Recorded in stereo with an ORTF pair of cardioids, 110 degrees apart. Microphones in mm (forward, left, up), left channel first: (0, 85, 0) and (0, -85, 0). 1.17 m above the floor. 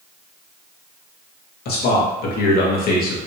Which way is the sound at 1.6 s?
70° left.